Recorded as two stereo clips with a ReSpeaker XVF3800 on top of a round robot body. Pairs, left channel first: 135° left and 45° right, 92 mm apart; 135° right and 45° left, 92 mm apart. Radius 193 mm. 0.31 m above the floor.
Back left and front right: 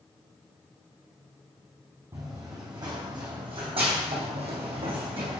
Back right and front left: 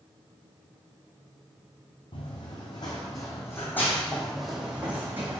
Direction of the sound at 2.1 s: 100° right.